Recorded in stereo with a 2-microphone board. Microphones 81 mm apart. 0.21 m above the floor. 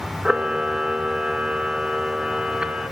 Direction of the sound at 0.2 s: 10° right (ahead or behind).